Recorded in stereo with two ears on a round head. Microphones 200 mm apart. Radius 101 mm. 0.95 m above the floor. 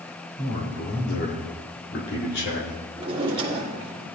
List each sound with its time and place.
0.4 s a man speaking: 40° left (ahead or behind), 2.5 m; by 2.9 s 50° left (ahead or behind), 4 m
3.0 s a drawer: 25° right (ahead or behind), 1.7 m